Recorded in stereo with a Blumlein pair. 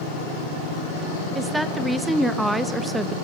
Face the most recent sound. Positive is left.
turn(degrees=-5)